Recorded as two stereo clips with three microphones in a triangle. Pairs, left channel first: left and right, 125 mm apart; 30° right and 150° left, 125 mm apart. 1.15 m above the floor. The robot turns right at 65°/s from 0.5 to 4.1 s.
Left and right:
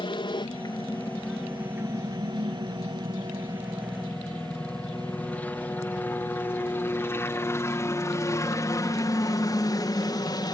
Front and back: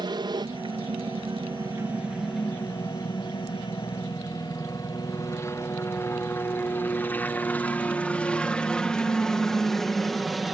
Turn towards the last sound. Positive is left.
turn(degrees=60)